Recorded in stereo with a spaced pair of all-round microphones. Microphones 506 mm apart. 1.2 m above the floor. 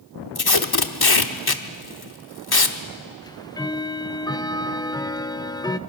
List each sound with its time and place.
0.3 s tape being pulled: 45° left (ahead or behind), 1.1 m
3.2 s ticking: 10° left (ahead or behind), 0.6 m